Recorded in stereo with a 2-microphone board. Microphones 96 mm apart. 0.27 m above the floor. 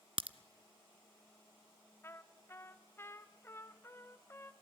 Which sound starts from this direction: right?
A crack, at 0.2 s.